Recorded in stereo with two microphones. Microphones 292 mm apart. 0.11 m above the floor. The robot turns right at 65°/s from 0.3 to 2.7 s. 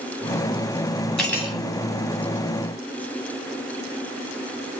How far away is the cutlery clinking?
About 1.3 m.